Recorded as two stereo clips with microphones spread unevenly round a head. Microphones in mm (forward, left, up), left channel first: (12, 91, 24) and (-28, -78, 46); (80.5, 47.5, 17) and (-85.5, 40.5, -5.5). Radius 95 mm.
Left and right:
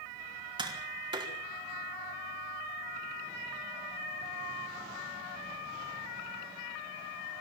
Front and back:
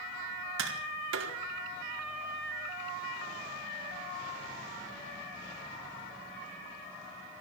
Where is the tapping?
170° right, 4.5 m.